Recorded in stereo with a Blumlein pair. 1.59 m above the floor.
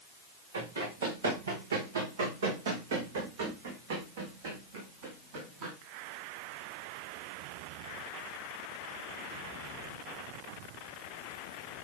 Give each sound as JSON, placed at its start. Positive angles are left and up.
{"t": 0.5, "sound": "running footsteps", "azimuth_deg": -70, "distance_m": 7.5}